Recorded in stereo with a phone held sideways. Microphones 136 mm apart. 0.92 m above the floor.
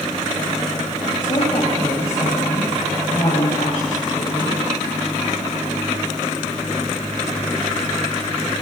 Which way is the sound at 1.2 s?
50° left (ahead or behind).